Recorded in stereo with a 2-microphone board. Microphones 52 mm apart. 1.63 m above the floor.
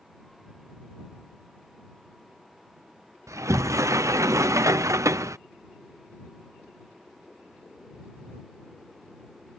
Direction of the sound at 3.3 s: 80° right.